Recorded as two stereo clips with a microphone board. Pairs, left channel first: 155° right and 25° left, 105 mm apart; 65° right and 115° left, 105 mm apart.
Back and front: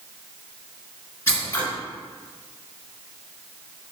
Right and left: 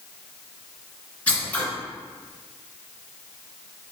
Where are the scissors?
120° right, 1.8 m.